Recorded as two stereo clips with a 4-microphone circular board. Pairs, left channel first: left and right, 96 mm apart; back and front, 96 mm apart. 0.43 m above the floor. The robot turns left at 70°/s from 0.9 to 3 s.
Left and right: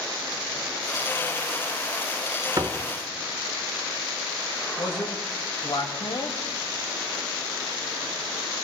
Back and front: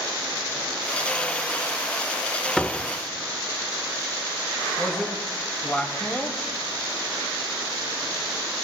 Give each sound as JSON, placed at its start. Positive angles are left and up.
{"t": 2.6, "sound": "a door slam", "azimuth_deg": -95, "distance_m": 0.7}
{"t": 4.8, "sound": "a man speaking", "azimuth_deg": 105, "distance_m": 1.9}